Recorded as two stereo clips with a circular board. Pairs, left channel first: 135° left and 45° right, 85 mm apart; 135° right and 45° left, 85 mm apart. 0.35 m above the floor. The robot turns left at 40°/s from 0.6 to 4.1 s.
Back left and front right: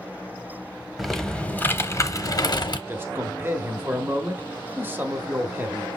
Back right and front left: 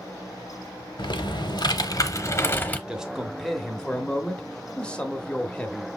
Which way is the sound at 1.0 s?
135° right.